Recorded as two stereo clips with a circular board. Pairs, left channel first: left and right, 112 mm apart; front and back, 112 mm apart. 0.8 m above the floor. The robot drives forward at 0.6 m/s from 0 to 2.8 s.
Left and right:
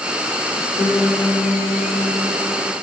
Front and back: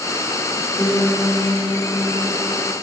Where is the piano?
60° left, 1.8 m; by 2.7 s 100° left, 1.6 m.